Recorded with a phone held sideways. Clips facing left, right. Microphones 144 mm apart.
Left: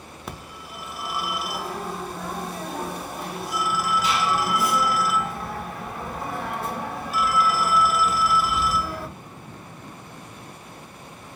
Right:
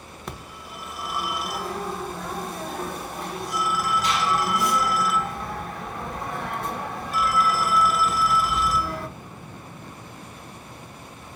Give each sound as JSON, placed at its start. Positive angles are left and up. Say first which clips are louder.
{"t": 0.3, "sound": "a phone ringing", "louder": "even", "side_deg": 5, "distance_m": 0.6}